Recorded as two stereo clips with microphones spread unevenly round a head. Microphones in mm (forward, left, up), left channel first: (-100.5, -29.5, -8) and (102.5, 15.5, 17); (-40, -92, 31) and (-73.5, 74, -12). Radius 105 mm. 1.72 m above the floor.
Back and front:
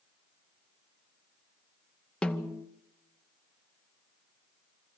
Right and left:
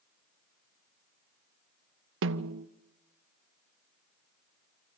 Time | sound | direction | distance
2.2 | a snare drum | 105° left | 0.8 m